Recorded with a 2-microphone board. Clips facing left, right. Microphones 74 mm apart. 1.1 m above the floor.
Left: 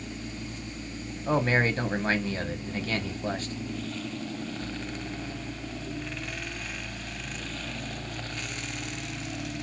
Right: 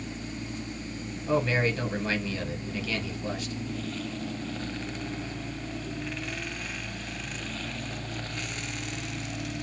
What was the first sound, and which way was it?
A man speaking, 40° left (ahead or behind).